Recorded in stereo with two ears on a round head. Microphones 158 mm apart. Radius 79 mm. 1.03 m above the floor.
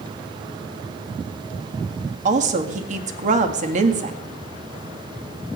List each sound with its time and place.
2.2 s a woman speaking: 45° right (ahead or behind), 1.9 m